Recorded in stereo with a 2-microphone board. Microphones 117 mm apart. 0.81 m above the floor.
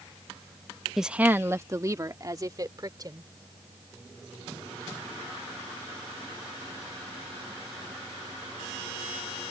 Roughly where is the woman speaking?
Centre.